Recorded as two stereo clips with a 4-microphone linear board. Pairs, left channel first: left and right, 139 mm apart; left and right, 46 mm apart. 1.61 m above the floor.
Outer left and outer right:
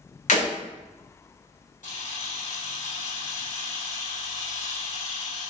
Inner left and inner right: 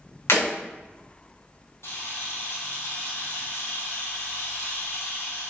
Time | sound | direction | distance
0.3 | breaking glass | 75° left (ahead or behind) | 3 m
1.8 | a camera shutter | 75° left (ahead or behind) | 3 m